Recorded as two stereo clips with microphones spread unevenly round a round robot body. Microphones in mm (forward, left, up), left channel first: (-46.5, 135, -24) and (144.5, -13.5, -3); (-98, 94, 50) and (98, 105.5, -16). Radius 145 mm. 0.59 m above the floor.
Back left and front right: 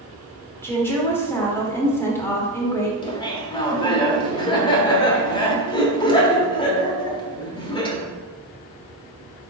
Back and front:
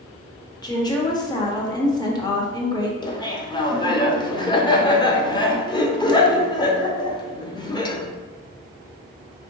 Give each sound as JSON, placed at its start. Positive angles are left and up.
{"t": 0.6, "sound": "a woman speaking", "azimuth_deg": 95, "distance_m": 0.9}
{"t": 3.0, "sound": "laughter", "azimuth_deg": 100, "distance_m": 0.8}